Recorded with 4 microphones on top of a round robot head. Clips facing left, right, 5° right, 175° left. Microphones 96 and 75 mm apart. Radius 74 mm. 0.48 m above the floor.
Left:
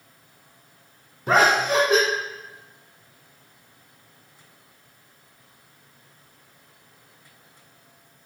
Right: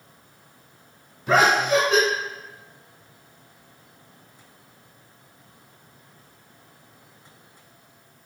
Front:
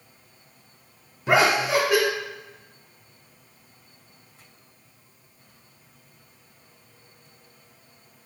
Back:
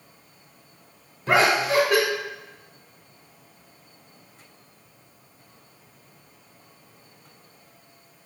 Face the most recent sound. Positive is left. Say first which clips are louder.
# even, even
turn(degrees=75)